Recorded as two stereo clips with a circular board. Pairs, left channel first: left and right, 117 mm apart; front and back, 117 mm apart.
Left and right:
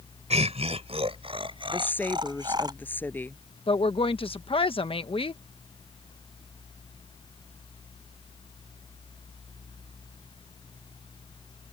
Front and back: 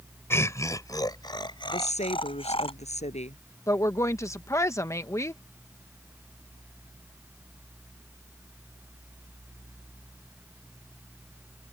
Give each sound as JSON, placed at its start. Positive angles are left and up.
{"t": 0.3, "sound": "laughter", "azimuth_deg": -70}
{"t": 1.7, "sound": "a woman speaking", "azimuth_deg": 15}
{"t": 3.7, "sound": "a woman speaking", "azimuth_deg": 60}